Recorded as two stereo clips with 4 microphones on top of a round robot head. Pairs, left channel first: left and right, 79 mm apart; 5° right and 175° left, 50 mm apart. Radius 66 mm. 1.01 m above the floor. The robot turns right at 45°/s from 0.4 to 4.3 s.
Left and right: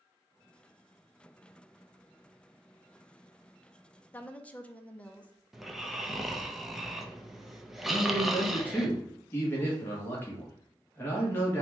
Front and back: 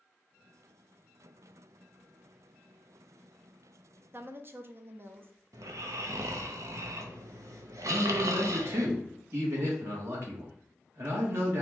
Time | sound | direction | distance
4.1 | a woman speaking | 150° left | 0.7 m
5.5 | snoring | straight behind | 0.6 m
7.9 | a man speaking | 150° left | 1.3 m